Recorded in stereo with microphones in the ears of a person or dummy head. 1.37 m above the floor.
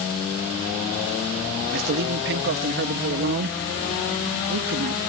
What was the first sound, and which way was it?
A man speaking, 55° right (ahead or behind).